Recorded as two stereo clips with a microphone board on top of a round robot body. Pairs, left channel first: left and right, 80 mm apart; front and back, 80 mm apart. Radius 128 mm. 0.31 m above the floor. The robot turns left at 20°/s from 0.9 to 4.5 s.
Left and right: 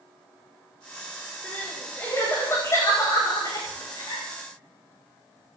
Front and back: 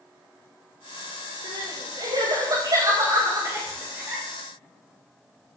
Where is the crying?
170° left, 9 m; by 4.2 s 110° left, 9 m.